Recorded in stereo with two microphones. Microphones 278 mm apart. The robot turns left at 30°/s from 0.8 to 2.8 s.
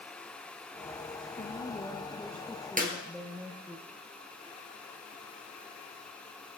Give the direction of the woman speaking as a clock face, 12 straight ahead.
11 o'clock.